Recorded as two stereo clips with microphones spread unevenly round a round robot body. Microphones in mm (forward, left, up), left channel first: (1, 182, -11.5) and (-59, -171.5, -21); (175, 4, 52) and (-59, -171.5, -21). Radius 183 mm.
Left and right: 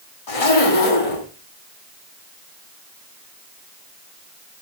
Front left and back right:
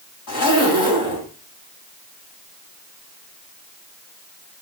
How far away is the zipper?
About 3.5 m.